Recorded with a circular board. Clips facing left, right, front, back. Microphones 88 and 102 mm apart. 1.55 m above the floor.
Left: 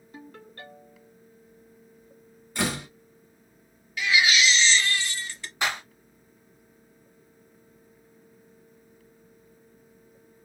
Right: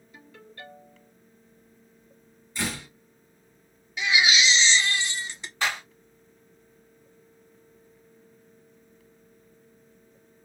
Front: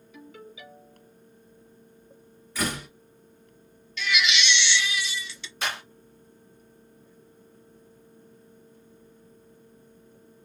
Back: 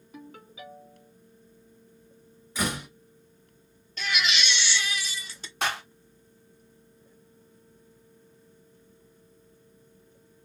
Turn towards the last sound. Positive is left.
turn(degrees=165)